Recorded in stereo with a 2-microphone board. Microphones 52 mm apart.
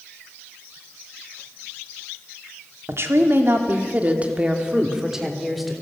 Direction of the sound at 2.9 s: 55° right (ahead or behind).